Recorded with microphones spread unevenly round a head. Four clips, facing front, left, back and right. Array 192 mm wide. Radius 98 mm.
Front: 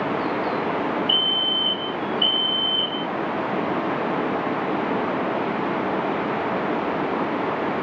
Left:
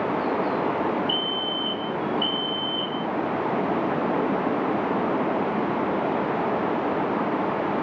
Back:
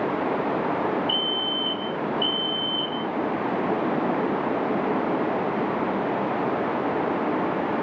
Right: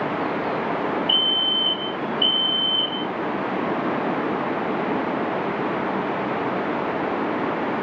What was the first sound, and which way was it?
A fire alarm, 30° right.